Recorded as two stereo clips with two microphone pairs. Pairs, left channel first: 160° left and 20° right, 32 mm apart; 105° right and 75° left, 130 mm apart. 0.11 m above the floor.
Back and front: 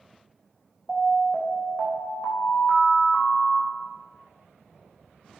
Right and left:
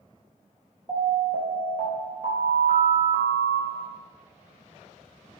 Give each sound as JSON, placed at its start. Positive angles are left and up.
{"t": 0.9, "sound": "an alarm", "azimuth_deg": 65, "distance_m": 4.0}